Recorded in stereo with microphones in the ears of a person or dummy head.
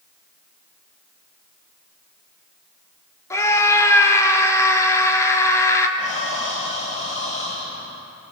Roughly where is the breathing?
Left.